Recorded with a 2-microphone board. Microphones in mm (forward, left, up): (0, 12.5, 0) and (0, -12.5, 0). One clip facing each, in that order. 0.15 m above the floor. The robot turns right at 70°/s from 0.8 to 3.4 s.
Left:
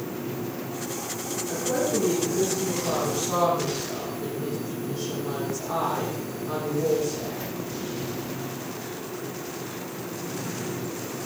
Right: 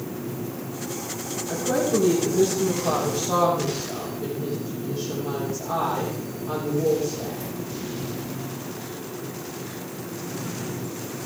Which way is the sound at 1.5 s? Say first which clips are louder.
Right 3 dB; 160° right.